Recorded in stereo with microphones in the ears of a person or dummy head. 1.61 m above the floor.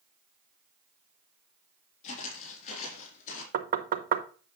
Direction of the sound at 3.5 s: 55° right (ahead or behind).